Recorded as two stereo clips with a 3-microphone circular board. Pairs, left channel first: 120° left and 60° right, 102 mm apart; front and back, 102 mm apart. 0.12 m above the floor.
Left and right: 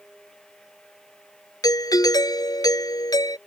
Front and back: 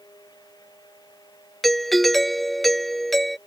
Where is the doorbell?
90° left.